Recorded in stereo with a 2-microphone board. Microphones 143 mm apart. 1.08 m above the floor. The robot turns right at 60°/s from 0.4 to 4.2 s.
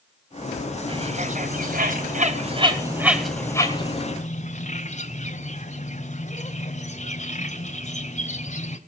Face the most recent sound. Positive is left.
turn(degrees=55)  # may be behind; listen again after turning